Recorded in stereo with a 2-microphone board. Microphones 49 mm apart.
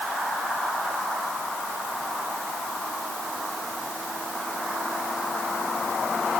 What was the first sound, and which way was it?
Only background noise.